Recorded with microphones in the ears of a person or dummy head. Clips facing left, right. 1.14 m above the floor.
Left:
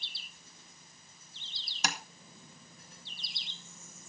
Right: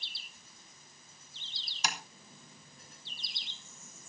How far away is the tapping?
About 2 m.